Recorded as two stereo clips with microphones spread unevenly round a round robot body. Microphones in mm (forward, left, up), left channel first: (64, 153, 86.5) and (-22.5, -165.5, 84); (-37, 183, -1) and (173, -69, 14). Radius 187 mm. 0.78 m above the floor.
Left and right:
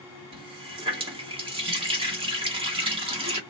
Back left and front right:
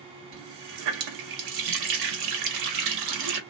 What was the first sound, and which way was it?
A running tap, 30° right.